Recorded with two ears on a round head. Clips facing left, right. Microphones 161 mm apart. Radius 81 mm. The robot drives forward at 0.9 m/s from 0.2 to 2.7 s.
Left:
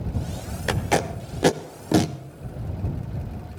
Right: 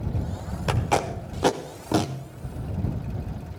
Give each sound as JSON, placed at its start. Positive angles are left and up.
{"t": 0.7, "sound": "tape being pulled", "side_deg": 15, "distance_m": 1.2}